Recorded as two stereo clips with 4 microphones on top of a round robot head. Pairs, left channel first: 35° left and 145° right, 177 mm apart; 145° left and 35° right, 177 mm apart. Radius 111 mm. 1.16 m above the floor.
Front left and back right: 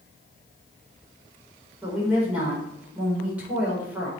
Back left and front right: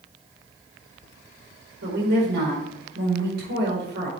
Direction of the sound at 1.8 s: 65° right.